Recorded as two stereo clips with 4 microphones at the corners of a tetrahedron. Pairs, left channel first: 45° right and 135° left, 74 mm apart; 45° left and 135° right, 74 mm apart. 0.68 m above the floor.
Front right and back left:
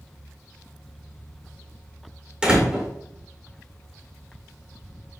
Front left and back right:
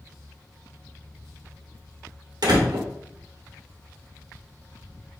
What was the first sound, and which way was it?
A door slam, 150° right.